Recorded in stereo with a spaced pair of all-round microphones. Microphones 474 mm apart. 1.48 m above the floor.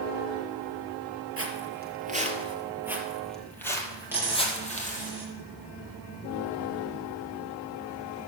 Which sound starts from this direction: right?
Footsteps, at 1.4 s.